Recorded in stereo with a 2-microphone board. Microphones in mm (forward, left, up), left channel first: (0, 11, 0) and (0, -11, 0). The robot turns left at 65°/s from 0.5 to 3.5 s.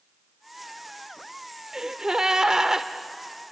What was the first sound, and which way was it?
A gasp, 25° right (ahead or behind).